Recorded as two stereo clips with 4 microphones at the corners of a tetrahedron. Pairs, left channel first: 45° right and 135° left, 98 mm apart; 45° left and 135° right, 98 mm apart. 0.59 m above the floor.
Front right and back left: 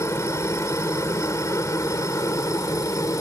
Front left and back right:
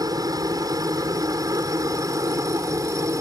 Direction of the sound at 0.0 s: 95° right.